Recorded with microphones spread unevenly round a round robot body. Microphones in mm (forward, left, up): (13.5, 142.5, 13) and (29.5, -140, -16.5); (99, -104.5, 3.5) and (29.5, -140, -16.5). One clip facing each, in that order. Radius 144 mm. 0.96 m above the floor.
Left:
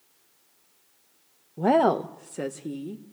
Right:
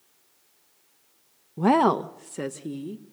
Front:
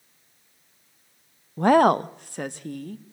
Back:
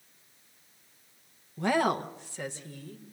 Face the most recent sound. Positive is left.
turn(degrees=0)